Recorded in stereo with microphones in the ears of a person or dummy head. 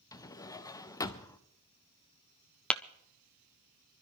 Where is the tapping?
5° left (ahead or behind), 0.6 m.